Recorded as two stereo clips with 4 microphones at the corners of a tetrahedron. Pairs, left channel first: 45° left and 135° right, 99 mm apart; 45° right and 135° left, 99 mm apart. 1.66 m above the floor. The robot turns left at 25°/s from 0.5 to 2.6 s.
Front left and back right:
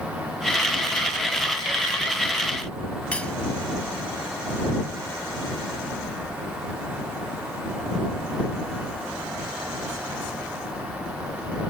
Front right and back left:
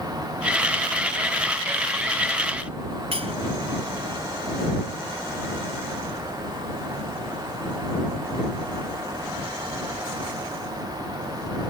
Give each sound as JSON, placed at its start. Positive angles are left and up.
{"t": 3.1, "sound": "cutlery clinking", "azimuth_deg": 125}